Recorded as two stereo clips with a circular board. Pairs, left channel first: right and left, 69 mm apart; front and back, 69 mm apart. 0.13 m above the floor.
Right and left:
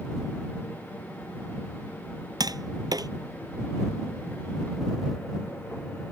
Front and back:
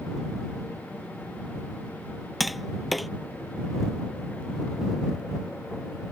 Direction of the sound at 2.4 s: 90° left.